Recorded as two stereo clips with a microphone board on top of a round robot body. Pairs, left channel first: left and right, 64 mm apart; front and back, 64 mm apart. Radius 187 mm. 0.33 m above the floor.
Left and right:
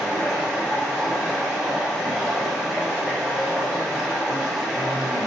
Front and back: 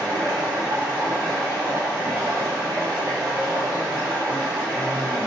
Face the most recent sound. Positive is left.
turn(degrees=175)